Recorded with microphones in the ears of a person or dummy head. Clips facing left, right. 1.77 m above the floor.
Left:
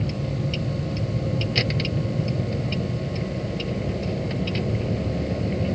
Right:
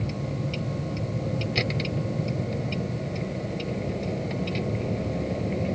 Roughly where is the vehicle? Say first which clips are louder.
Left 3 dB; centre.